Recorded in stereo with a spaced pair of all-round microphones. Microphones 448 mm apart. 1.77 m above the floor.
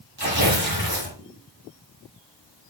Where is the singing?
No singing in this recording.